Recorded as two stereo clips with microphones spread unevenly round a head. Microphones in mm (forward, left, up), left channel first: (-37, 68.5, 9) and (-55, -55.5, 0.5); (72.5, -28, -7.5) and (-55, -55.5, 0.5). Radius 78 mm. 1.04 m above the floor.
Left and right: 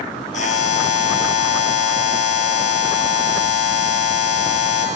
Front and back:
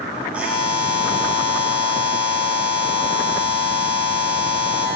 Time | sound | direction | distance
0.3 | a buzzer | 110° left | 6.5 m